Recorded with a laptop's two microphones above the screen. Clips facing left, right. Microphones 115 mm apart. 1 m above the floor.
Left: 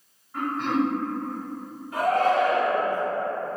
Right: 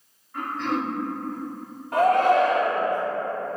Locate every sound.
0.3 s throat clearing: 15° left (ahead or behind), 1.7 m
1.9 s a shout: 65° right (ahead or behind), 1.0 m